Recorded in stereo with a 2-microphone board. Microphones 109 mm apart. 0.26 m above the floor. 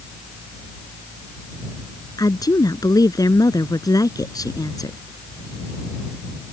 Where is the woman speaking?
35° left (ahead or behind).